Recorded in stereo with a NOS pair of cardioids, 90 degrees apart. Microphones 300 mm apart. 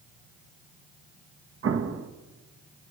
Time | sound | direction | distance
1.6 | an explosion | 50° right | 2.5 m